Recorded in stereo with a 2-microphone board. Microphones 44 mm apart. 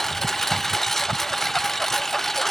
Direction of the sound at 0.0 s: 5° left (ahead or behind).